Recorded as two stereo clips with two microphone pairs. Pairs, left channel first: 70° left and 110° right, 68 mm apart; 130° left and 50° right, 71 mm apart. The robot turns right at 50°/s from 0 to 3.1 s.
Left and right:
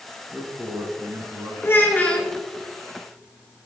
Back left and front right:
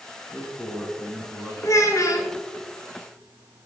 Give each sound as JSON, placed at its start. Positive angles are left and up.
{"t": 0.3, "sound": "a man speaking", "azimuth_deg": 175, "distance_m": 1.4}
{"t": 1.6, "sound": "a child speaking", "azimuth_deg": 110, "distance_m": 1.0}